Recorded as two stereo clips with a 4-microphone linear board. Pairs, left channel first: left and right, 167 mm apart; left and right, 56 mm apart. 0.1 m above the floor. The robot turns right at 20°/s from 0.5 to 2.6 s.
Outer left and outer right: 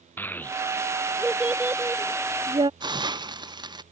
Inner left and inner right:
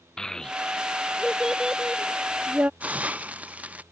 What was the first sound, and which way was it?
A child speaking, 10° left (ahead or behind).